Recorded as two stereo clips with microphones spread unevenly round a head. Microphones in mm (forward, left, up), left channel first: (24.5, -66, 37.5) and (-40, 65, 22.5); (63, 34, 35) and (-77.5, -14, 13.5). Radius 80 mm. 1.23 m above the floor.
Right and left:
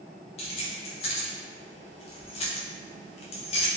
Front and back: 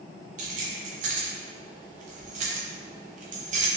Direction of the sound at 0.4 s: 115° right.